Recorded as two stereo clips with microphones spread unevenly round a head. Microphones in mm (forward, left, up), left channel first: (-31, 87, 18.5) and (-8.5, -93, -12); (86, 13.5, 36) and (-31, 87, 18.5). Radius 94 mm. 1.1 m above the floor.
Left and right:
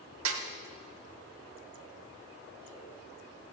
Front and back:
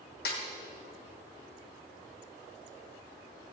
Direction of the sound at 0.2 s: 65° right.